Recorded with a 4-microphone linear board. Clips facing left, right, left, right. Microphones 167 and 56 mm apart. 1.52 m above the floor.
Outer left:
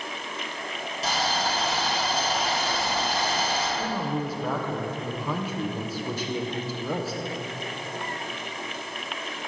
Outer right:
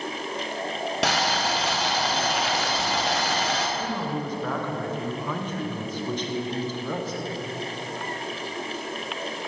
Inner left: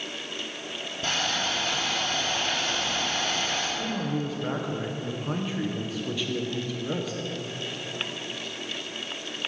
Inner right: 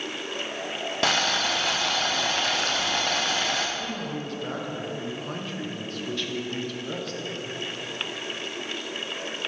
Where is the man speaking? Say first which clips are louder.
Outer left 1 dB, inner left 3 dB; 10° left (ahead or behind), 0.8 m.